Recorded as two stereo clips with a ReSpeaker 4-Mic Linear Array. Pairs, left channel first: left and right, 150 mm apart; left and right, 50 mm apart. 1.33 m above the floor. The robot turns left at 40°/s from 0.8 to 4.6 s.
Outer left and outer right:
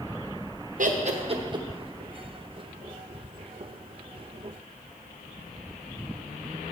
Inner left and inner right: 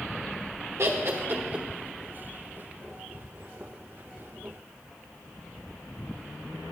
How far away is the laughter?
About 0.8 m.